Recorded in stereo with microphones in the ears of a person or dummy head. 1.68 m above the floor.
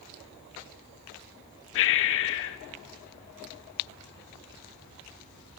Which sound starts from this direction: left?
Breathing, at 1.8 s.